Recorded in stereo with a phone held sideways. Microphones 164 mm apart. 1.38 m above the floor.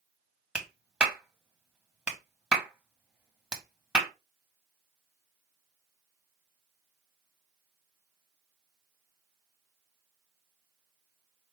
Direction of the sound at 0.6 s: 5° right (ahead or behind).